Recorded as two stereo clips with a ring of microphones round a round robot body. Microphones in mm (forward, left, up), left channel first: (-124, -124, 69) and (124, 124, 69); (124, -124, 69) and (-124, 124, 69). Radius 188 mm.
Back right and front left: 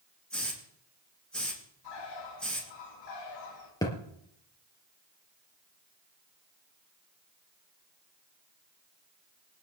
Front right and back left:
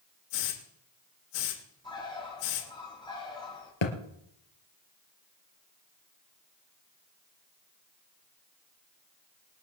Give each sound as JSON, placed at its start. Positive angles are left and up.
{"t": 0.3, "sound": "a hiss", "azimuth_deg": -50, "distance_m": 7.5}
{"t": 1.8, "sound": "a bird", "azimuth_deg": -120, "distance_m": 6.0}
{"t": 3.8, "sound": "a thud", "azimuth_deg": -55, "distance_m": 4.0}